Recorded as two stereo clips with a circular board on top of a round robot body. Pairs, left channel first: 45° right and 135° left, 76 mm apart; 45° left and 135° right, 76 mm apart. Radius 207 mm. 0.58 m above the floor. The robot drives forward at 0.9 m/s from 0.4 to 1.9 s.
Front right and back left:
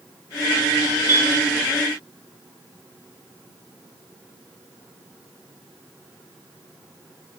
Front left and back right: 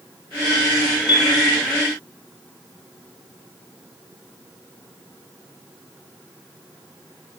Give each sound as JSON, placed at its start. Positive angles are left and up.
{"t": 1.1, "sound": "a piano", "azimuth_deg": 75, "distance_m": 9.0}